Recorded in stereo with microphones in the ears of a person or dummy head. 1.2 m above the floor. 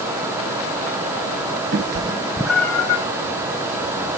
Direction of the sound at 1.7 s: 45° right (ahead or behind).